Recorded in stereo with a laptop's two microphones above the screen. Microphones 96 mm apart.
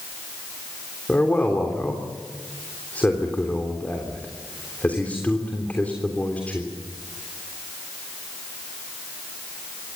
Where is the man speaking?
15° left (ahead or behind), 3.5 m.